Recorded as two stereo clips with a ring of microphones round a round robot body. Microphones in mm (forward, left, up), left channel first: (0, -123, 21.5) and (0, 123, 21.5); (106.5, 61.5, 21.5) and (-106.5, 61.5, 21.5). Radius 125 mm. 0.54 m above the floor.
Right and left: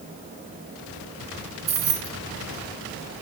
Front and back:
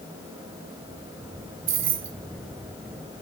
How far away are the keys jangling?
About 1.2 m.